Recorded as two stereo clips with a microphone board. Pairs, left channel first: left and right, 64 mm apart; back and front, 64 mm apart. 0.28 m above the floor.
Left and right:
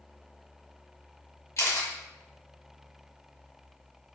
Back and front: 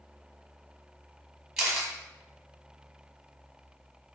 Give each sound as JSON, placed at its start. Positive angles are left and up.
{"t": 1.6, "sound": "a camera shutter", "azimuth_deg": 85, "distance_m": 1.5}